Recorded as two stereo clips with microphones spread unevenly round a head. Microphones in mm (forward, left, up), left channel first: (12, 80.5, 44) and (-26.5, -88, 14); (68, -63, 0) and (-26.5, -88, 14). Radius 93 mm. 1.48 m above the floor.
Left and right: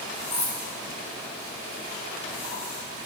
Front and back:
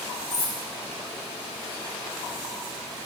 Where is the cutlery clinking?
30° left, 4 m.